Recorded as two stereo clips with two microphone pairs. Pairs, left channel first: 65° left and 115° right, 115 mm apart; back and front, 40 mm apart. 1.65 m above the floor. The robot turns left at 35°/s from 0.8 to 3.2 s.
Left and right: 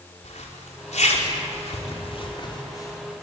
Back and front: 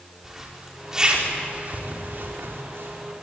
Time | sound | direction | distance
0.2 | a zipper | 80° left | 4.5 m